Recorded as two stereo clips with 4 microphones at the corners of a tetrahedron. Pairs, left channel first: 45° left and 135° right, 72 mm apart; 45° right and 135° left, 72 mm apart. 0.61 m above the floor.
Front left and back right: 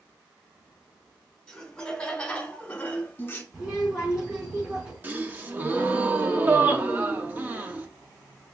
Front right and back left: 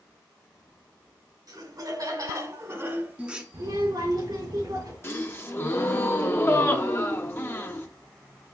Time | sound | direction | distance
1.5 | laughter | 130° left | 2.5 m
3.5 | a child speaking | 145° left | 3.5 m
5.0 | a gasp | 85° right | 0.9 m